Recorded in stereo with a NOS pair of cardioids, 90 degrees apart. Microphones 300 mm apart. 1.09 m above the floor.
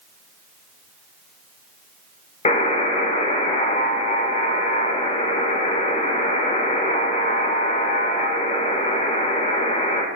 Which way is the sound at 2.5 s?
20° left.